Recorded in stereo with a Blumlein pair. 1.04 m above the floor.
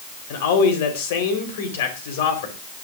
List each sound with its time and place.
0.3 s a man speaking: 55° left, 3.5 m